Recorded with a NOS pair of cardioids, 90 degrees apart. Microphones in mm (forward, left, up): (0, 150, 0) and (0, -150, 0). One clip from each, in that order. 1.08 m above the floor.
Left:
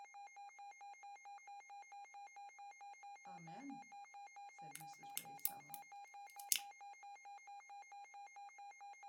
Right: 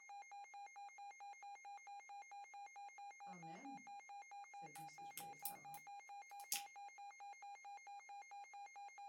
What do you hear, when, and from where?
3.3 s a woman speaking: 20° left, 1.0 m
4.8 s a crack: 45° left, 0.7 m